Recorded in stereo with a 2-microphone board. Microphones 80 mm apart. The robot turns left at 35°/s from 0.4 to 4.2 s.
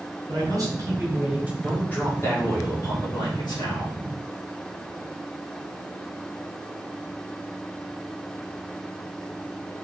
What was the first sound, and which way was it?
A man speaking, 125° right.